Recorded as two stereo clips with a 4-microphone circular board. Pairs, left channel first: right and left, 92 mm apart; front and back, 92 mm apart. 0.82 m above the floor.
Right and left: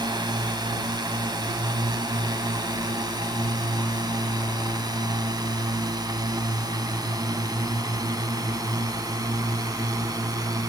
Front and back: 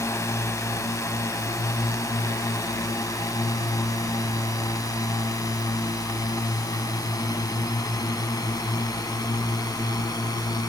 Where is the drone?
55° left; by 10.7 s 45° left.